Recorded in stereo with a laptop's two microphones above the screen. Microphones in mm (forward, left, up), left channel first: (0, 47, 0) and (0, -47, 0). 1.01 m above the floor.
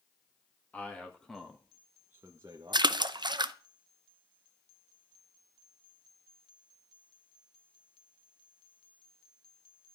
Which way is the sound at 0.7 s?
15° left (ahead or behind).